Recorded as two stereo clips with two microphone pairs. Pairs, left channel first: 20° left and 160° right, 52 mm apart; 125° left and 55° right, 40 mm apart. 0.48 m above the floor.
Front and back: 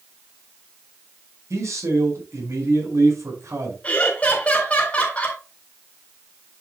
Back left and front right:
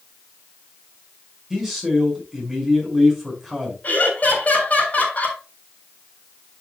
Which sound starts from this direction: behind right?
A man speaking, at 1.5 s.